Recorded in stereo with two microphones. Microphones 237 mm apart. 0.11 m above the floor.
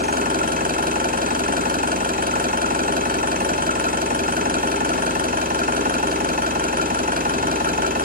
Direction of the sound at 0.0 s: 40° right (ahead or behind).